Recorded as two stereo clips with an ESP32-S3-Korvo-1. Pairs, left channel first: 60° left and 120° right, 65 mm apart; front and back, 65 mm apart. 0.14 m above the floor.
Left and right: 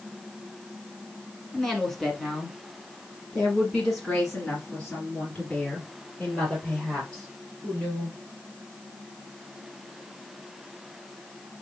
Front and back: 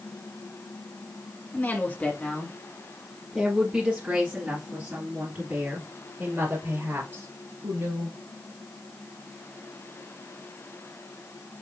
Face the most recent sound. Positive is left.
turn(degrees=140)